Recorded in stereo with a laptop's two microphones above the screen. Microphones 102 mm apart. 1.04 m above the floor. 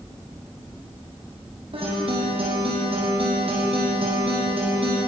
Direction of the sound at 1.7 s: 60° right (ahead or behind).